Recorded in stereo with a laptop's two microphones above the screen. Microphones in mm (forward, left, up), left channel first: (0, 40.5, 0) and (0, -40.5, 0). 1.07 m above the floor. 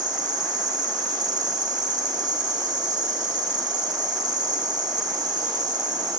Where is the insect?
55° right (ahead or behind), 0.7 m.